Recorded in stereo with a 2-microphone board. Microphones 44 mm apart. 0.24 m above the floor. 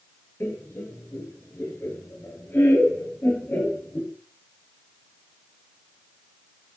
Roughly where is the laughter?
Left.